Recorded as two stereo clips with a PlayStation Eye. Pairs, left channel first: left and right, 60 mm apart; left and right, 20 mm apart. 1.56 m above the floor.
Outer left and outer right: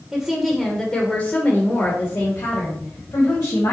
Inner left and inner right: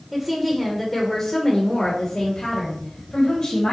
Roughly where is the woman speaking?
Centre.